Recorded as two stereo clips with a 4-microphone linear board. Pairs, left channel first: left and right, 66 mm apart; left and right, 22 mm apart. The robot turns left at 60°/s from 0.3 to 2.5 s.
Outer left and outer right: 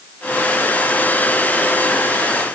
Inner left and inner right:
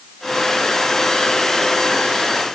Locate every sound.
Only background noise.